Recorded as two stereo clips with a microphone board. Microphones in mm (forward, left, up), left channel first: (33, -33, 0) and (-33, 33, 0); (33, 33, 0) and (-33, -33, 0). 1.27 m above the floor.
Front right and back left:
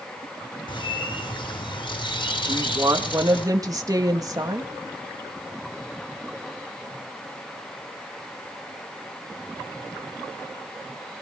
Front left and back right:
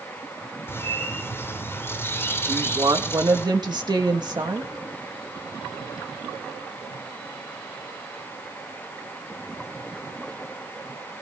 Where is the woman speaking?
175° right, 1.7 m.